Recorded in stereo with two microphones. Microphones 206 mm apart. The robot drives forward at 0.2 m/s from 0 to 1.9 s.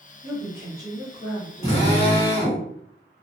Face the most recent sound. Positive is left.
turn(degrees=30)  # may be behind; listen again after turning